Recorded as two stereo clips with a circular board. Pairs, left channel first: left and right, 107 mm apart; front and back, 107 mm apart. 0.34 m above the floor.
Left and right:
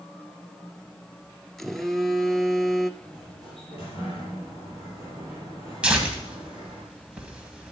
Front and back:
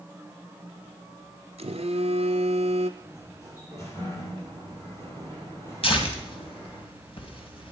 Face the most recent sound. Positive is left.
turn(degrees=-10)